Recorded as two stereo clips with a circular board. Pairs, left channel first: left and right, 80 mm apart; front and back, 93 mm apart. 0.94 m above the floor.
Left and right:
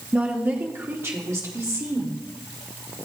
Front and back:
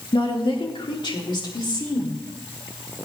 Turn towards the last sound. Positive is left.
turn(degrees=-40)